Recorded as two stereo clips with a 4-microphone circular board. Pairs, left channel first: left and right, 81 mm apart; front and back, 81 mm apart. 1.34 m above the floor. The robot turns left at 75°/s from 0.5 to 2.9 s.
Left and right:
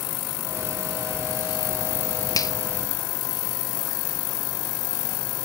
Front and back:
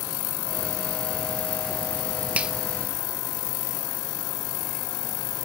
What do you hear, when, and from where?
2.4 s a finger snap: 110° left, 0.5 m; by 2.5 s 100° left, 0.5 m